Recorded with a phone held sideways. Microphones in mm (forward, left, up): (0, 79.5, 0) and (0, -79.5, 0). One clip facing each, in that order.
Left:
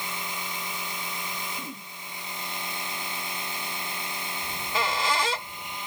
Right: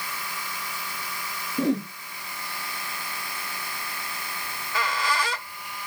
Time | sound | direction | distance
0.0 | a machine running | 20° left (ahead or behind) | ?
1.6 | a whoosh | 85° right | ?
4.4 | a squeak | 25° left (ahead or behind) | ?